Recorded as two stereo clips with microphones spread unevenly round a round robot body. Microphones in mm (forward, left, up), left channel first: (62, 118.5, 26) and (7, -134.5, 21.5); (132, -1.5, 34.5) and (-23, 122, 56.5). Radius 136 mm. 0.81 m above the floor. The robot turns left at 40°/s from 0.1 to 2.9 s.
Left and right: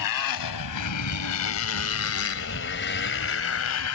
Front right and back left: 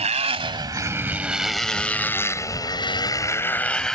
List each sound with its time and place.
0.0 s a motorcycle: 85° left; by 4.0 s 50° left